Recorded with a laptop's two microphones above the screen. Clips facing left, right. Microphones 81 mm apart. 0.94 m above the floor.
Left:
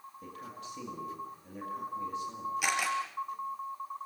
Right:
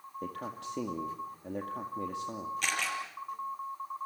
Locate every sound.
0.2 s a man speaking: 70° right (ahead or behind), 2 m
2.6 s a camera shutter: 10° left (ahead or behind), 4.5 m